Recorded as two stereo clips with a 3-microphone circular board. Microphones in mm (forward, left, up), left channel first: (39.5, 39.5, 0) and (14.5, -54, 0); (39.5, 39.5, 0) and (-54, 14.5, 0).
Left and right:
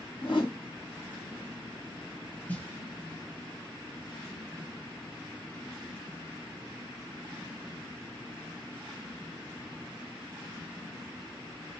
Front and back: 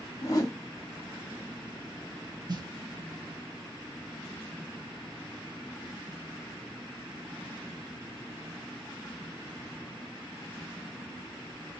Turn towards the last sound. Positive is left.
turn(degrees=150)